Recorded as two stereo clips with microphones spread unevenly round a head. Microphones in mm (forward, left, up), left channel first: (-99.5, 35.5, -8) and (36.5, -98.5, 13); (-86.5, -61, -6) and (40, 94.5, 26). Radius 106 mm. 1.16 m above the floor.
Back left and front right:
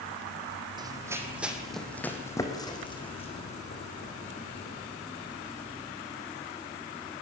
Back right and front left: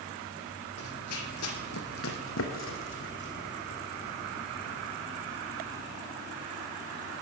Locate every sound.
0.8 s running footsteps: 105° right, 2.5 m; by 4.8 s straight behind, 4.5 m